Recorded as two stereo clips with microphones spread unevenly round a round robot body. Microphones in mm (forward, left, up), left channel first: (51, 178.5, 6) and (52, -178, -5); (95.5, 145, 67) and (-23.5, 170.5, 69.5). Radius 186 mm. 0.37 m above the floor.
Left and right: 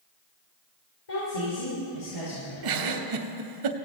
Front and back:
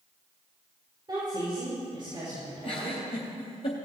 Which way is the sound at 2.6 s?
65° right.